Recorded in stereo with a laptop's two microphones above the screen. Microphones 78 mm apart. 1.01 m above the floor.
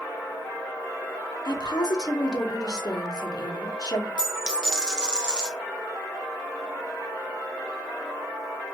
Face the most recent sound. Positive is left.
turn(degrees=-10)  # may be behind; listen again after turning